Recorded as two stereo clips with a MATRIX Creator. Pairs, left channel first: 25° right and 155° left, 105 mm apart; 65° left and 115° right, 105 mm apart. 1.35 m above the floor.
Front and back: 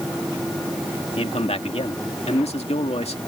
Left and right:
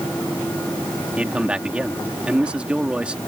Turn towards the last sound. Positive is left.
turn(degrees=-35)